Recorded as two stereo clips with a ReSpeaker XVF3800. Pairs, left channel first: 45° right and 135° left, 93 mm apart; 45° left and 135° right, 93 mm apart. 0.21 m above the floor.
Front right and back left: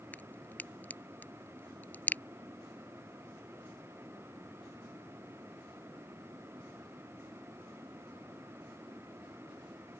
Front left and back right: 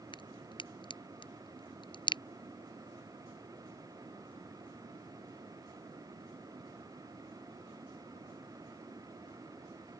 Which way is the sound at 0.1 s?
25° left.